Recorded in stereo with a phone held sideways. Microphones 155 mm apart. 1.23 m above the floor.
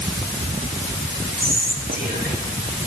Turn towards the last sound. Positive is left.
turn(degrees=-75)  # may be behind; listen again after turning